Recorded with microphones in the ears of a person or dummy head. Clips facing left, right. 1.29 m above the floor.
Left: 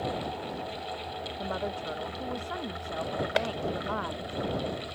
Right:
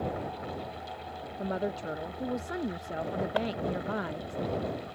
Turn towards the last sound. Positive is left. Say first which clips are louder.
# left 2 dB
turn(degrees=30)  # may be behind; listen again after turning